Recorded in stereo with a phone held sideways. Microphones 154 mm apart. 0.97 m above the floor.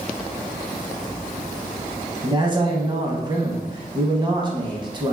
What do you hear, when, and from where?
2.2 s a man speaking: 30° right (ahead or behind), 0.9 m